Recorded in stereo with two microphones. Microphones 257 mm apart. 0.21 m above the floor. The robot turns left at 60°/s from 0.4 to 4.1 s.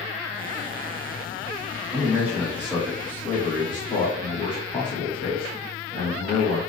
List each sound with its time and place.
1.9 s a man speaking: 15° right (ahead or behind), 1.1 m; by 6.6 s 20° left (ahead or behind), 1.1 m